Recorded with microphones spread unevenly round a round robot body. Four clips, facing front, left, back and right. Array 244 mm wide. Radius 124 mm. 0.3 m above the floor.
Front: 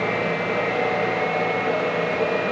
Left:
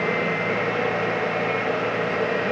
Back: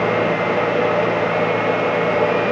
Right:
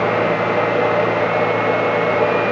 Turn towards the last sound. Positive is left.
No sound to turn to.